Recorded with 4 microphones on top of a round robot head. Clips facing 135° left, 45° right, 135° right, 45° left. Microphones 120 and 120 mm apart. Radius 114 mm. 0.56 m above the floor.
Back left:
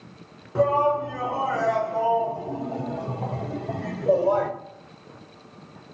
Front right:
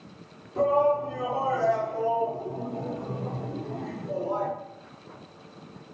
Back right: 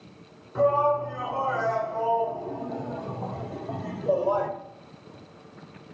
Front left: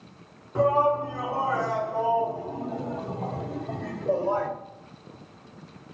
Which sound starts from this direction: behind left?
A shout, at 0.6 s.